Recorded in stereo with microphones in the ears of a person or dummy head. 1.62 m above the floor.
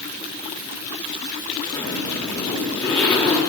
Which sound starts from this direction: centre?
A zipper, at 1.7 s.